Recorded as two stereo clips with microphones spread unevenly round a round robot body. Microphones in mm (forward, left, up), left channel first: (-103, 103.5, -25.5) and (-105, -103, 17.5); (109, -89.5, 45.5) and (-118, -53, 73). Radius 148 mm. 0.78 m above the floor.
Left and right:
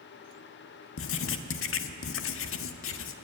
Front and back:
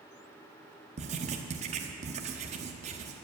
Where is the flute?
No flute in this recording.